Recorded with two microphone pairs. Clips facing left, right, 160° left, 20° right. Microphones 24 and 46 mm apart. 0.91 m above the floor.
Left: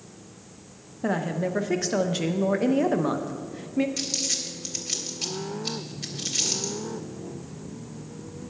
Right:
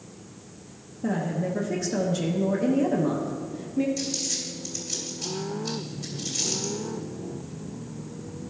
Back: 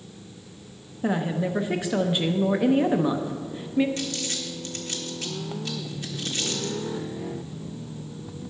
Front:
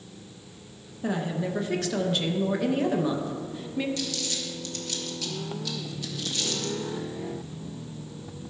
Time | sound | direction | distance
1.0 | a woman speaking | 100° left | 0.6 m
4.0 | crumpling | 120° left | 1.4 m